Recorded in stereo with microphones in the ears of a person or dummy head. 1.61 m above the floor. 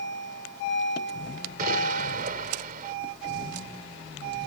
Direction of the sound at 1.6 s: 55° right (ahead or behind).